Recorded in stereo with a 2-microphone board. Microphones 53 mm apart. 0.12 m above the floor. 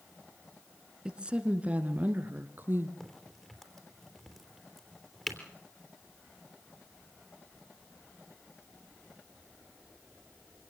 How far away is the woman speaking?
About 1.4 m.